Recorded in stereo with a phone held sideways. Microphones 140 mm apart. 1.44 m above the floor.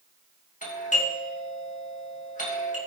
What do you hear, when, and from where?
0.6 s a doorbell: 60° left (ahead or behind), 2.5 m